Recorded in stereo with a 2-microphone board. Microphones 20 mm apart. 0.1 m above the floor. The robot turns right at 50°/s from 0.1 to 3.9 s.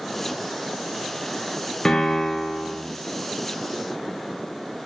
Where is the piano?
105° left, 1.6 m; by 2.8 s 150° left, 1.6 m.